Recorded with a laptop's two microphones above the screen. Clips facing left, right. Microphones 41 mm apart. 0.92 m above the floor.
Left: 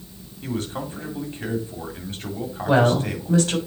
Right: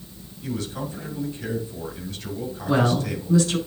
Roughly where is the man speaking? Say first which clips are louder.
Left 1 dB; left.